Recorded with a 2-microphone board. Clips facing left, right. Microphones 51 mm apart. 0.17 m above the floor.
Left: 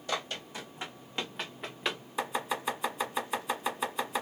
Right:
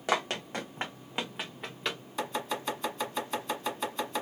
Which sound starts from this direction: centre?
Chopping, at 2.2 s.